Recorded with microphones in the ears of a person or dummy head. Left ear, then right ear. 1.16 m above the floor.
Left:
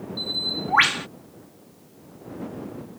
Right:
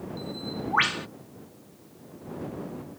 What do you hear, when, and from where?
0.2 s a bird: 20° left (ahead or behind)